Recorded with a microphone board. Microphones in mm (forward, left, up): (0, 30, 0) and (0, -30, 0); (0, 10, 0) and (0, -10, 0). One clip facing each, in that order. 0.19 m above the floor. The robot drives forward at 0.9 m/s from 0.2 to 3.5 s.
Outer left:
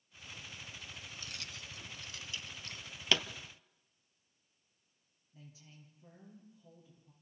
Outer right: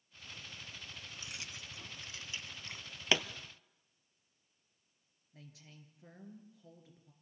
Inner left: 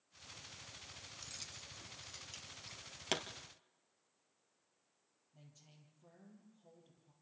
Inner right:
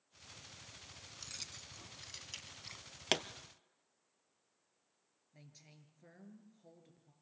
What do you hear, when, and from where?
1.1 s keys jangling: 15° right (ahead or behind), 1.3 m; by 2.9 s 20° right (ahead or behind), 1.0 m
3.1 s a pop: 20° right (ahead or behind), 0.9 m
5.3 s a woman speaking: 65° right (ahead or behind), 4 m